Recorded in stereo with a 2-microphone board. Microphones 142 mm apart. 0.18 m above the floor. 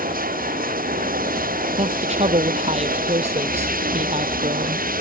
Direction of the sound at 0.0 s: 85° right.